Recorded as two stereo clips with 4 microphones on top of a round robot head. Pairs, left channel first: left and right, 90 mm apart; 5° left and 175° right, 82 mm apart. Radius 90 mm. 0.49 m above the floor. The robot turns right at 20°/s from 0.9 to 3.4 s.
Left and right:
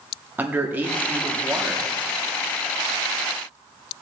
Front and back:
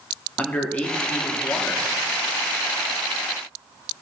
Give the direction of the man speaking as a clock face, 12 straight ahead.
2 o'clock.